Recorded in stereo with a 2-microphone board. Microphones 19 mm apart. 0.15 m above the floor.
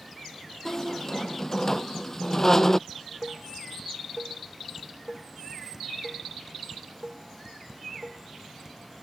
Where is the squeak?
20° left (ahead or behind).